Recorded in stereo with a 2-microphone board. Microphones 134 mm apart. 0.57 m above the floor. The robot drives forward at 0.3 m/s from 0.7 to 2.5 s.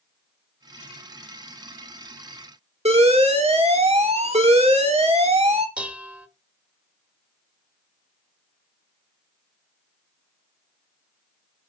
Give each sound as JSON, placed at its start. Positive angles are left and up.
{"t": 2.9, "sound": "an alarm", "side_deg": -50, "distance_m": 2.0}
{"t": 5.8, "sound": "dishes clattering", "side_deg": -10, "distance_m": 1.1}